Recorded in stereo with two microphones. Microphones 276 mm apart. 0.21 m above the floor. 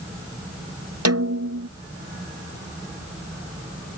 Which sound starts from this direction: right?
A snare drum, at 1.1 s.